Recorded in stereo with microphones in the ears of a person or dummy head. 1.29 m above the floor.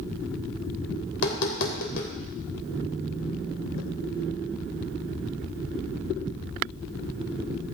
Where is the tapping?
70° left (ahead or behind), 3 m.